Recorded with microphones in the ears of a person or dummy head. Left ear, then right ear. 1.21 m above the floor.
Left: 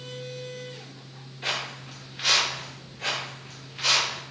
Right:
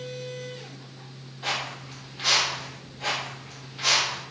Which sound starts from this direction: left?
Footsteps, at 1.4 s.